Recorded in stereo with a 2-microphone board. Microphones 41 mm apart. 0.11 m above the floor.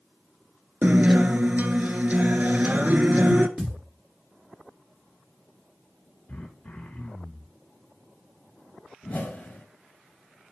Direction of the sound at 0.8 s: 45° right (ahead or behind).